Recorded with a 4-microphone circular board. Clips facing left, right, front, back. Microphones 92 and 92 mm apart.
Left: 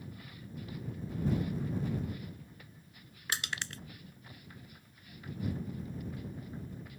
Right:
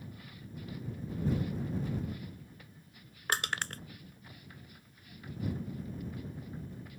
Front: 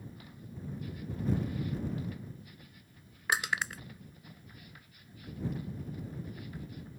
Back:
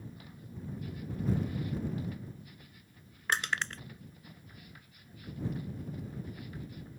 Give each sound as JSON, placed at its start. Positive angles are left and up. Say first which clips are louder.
{"t": 3.3, "sound": "crushing", "louder": "right 4 dB, front 1 dB", "azimuth_deg": -80}